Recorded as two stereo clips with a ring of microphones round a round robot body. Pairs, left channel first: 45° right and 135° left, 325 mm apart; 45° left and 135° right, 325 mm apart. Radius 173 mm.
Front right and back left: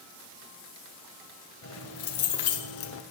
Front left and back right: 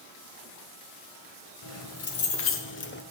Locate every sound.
1.6 s keys jangling: straight ahead, 1.9 m; by 3.0 s 10° right, 1.0 m